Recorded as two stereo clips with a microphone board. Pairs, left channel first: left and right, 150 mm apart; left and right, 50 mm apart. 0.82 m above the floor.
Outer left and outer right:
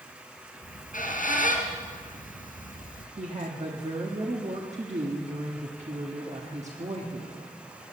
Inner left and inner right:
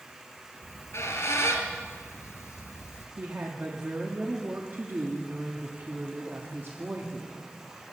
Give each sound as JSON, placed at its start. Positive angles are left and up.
{"t": 0.6, "sound": "a squeak", "side_deg": 70, "distance_m": 2.5}
{"t": 3.2, "sound": "a woman speaking", "side_deg": -50, "distance_m": 1.4}